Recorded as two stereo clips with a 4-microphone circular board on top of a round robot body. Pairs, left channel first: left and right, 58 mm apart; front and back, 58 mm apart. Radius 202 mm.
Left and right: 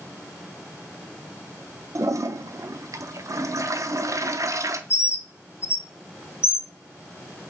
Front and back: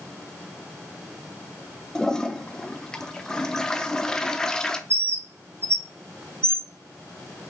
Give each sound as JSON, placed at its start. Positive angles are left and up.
{"t": 1.9, "sound": "a toilet flushing", "azimuth_deg": -80, "distance_m": 0.9}
{"t": 4.9, "sound": "a bird", "azimuth_deg": 135, "distance_m": 1.0}